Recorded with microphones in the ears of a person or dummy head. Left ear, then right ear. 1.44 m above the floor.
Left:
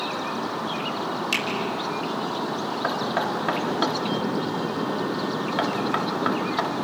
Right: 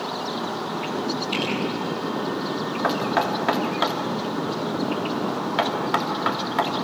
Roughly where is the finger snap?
Left.